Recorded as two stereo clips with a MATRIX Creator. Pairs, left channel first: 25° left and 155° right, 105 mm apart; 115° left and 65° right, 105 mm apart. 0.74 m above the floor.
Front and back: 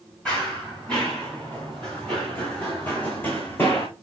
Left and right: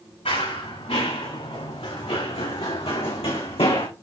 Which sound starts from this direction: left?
Running footsteps, at 0.2 s.